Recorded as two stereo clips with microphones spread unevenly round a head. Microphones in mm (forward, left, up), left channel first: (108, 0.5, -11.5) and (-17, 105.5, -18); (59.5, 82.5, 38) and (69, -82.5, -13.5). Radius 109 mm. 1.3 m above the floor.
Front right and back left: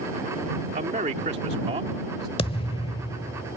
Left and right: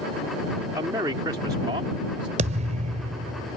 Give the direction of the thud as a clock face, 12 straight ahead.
2 o'clock.